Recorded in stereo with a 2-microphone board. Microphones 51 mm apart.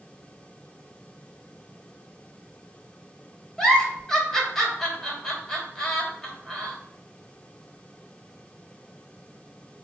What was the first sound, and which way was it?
A giggle, 5° left (ahead or behind).